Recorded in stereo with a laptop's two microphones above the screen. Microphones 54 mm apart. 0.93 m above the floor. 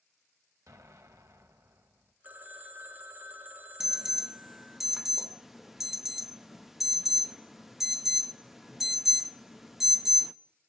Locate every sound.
0.7 s an explosion: 70° right (ahead or behind), 2.0 m
2.2 s a phone ringing: 30° right (ahead or behind), 3 m
3.8 s an alarm: 5° right (ahead or behind), 0.7 m